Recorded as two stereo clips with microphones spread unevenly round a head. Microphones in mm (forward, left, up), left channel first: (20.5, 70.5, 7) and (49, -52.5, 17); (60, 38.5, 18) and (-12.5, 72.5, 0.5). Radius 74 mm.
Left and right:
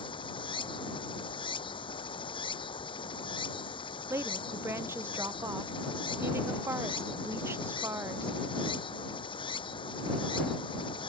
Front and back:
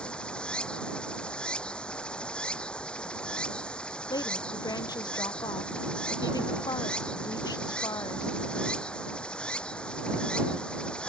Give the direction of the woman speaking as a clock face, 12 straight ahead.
12 o'clock.